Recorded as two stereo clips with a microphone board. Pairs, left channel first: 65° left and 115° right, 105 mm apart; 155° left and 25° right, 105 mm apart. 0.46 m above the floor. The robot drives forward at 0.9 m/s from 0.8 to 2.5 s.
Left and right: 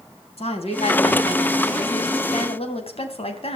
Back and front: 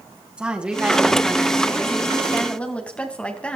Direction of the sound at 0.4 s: 60° left.